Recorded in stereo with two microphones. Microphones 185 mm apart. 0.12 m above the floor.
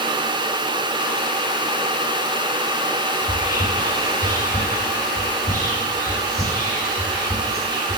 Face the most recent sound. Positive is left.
turn(degrees=30)  # may be behind; listen again after turning